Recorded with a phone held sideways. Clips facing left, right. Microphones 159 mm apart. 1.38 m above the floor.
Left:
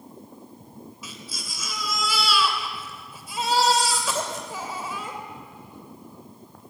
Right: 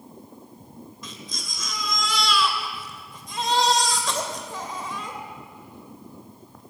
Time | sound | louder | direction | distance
1.0 | a baby crying | right 1 dB | 5° left (ahead or behind) | 2.5 m